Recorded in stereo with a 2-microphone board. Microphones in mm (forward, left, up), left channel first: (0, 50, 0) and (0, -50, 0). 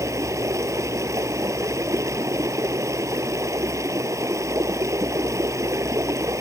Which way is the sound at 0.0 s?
30° right (ahead or behind).